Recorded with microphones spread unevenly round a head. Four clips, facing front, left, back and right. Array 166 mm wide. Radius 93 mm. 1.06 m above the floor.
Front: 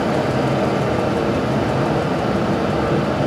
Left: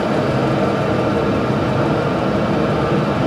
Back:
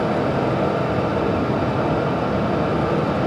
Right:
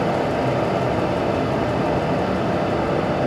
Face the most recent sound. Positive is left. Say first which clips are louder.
# left 3 dB, front 1 dB
turn(degrees=85)